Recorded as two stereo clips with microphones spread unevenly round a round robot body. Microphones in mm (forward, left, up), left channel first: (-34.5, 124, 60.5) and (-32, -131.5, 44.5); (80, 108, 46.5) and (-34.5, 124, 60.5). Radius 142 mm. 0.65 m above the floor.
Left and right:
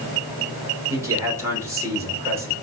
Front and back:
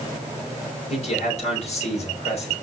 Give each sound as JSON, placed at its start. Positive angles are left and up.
{"t": 0.9, "sound": "a man speaking", "azimuth_deg": -10, "distance_m": 3.0}